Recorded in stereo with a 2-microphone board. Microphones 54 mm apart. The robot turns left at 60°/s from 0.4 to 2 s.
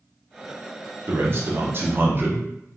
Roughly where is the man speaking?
Ahead right.